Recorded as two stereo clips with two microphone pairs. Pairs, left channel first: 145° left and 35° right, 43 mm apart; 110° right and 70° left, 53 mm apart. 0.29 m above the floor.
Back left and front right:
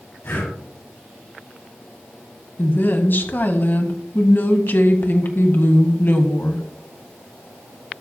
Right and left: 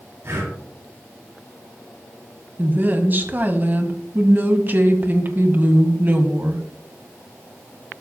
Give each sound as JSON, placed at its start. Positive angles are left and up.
{"t": 0.2, "sound": "breathing", "azimuth_deg": 110, "distance_m": 8.0}
{"t": 2.6, "sound": "a woman speaking", "azimuth_deg": 115, "distance_m": 1.8}